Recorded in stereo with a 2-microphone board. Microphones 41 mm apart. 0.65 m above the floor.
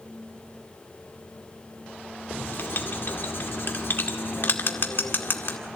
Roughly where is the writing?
Left.